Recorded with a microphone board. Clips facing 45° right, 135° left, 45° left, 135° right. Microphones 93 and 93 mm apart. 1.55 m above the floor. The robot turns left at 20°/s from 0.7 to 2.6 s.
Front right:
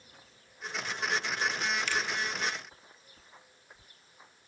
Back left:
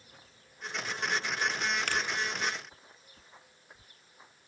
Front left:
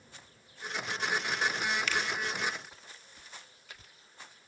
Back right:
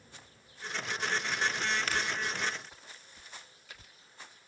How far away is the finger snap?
About 1.7 m.